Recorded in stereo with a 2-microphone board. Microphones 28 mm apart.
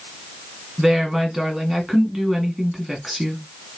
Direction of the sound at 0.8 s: 5° right (ahead or behind).